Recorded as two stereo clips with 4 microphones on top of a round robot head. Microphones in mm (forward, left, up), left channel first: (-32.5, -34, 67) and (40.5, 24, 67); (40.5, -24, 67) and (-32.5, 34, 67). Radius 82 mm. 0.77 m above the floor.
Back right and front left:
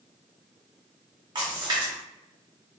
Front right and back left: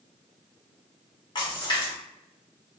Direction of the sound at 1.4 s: Straight ahead.